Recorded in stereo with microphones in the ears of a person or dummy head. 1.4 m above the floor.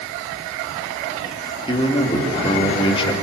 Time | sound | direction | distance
1.7 | a man speaking | 25° left (ahead or behind) | 3 m